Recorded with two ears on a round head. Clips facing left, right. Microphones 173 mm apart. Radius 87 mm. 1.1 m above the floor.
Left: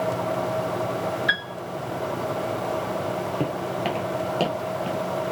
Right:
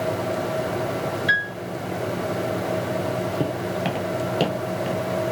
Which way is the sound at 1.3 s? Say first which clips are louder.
Right 2 dB; centre (ahead or behind).